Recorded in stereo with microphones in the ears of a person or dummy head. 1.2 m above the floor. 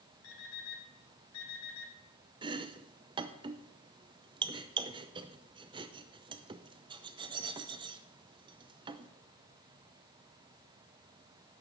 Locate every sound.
0.2 s an alarm clock: 80° left, 4 m
2.4 s chopping: 20° right (ahead or behind), 0.7 m